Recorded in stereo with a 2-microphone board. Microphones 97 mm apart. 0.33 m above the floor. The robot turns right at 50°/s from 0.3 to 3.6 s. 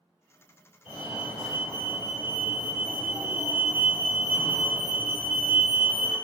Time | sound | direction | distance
0.8 | a fire alarm | 10° right (ahead or behind) | 1.8 m